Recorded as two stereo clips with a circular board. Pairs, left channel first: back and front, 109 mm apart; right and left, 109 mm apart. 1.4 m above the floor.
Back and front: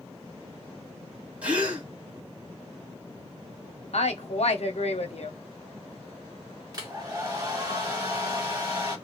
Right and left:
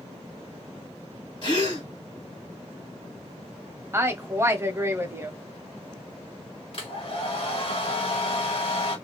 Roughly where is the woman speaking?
Behind.